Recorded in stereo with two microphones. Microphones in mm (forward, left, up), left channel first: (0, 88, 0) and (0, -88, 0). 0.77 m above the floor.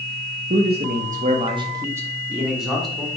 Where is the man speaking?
60° right (ahead or behind), 0.8 m; by 3.1 s centre (ahead or behind), 1.8 m.